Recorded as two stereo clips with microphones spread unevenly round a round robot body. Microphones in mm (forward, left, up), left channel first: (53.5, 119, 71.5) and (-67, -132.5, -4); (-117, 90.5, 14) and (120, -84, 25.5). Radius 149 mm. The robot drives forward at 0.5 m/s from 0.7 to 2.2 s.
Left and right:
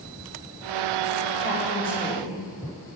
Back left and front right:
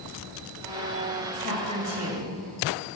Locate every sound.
1.4 s a woman speaking: 165° left, 2 m; by 2.4 s 170° left, 2.5 m